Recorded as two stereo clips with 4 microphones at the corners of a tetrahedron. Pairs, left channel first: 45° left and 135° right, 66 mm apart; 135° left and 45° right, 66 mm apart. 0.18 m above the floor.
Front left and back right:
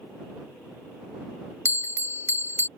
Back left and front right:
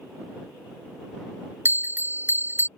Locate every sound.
1.6 s a bell: 5° left